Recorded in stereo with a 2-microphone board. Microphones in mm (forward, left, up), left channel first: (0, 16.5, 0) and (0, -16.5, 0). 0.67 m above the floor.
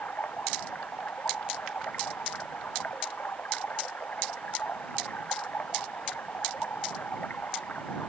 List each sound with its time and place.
0.0 s running water: 60° left (ahead or behind)